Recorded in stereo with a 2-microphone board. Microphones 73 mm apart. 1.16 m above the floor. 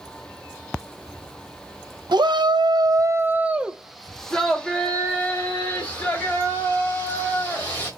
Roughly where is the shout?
Right.